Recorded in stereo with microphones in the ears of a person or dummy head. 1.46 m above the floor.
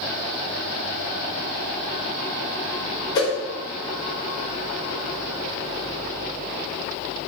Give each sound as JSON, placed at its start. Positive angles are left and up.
{"t": 3.1, "sound": "a whoosh", "side_deg": 15, "distance_m": 0.9}